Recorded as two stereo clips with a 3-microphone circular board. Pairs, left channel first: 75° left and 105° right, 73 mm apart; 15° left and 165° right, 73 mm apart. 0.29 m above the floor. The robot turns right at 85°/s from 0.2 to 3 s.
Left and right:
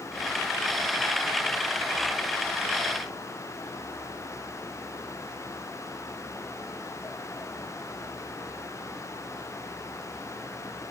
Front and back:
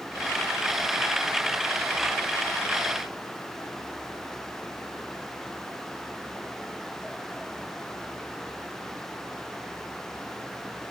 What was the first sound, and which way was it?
Only background noise.